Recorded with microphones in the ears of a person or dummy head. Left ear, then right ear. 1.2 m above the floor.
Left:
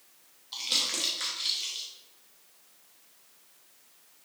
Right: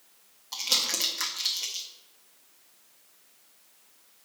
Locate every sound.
0.5 s crumpling: 35° right (ahead or behind), 1.0 m